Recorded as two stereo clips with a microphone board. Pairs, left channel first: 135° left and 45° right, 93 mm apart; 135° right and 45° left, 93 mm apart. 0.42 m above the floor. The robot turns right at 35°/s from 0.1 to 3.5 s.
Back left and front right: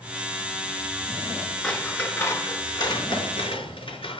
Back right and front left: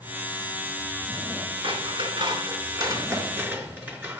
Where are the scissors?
50° left, 5 m; by 4.2 s 115° left, 5 m.